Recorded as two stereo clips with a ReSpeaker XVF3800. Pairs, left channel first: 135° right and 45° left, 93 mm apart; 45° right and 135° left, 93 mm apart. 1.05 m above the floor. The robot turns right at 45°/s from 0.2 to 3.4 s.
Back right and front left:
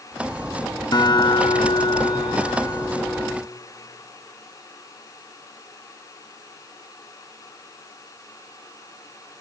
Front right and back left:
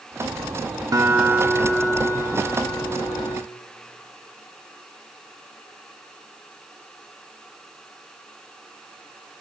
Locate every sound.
0.9 s a guitar: 175° right, 2.5 m; by 3.4 s 65° right, 2.5 m